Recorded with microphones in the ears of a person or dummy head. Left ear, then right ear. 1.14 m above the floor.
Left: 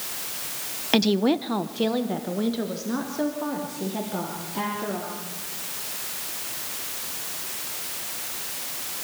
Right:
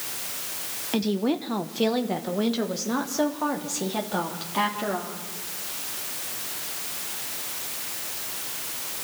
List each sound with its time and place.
0.9 s a woman speaking: 30° left (ahead or behind), 0.8 m; by 5.2 s 60° right (ahead or behind), 3 m